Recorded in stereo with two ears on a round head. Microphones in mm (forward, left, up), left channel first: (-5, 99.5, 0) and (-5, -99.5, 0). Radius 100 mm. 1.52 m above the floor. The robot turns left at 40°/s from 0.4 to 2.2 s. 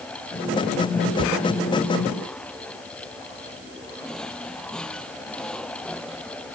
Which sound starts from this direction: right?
A cupboard door, at 1.1 s.